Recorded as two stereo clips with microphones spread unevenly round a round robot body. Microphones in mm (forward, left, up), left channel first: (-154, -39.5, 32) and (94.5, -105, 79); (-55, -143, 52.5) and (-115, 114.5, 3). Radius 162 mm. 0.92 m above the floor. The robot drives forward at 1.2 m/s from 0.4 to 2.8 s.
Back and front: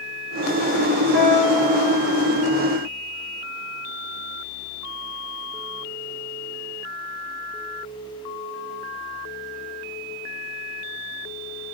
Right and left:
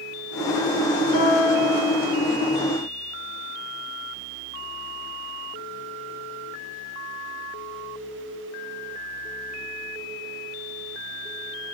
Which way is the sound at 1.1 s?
60° right.